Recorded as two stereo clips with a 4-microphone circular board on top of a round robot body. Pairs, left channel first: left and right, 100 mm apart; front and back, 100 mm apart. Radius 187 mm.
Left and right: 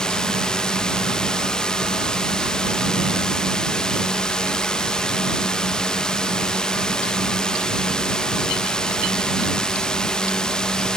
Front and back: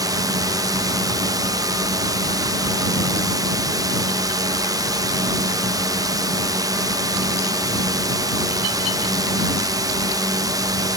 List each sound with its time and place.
0.0 s a drone: 170° left